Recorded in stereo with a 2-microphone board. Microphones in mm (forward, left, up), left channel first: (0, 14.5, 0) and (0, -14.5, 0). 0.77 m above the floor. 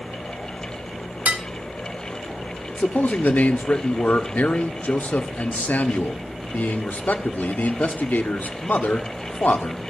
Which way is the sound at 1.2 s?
60° right (ahead or behind).